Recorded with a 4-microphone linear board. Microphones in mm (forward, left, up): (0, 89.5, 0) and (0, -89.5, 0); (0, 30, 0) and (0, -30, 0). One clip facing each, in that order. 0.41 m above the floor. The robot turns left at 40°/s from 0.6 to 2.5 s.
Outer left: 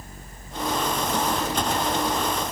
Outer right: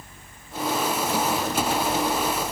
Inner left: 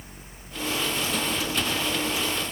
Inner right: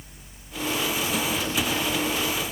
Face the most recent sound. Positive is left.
No sound to turn to.